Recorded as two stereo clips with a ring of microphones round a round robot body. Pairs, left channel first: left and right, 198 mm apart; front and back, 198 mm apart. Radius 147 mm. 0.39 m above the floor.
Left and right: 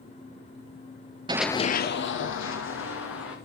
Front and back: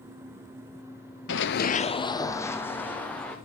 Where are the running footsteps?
25° right, 0.6 m; by 3.4 s 85° left, 3 m.